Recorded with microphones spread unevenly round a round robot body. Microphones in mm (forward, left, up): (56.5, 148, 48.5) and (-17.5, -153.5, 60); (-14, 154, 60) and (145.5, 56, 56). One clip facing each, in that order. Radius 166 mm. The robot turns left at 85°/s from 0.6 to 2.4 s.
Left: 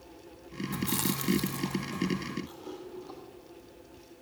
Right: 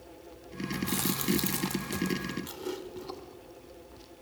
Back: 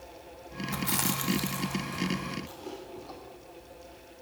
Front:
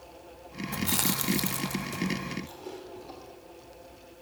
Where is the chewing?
25° left, 0.8 m; by 3.2 s 115° right, 0.8 m.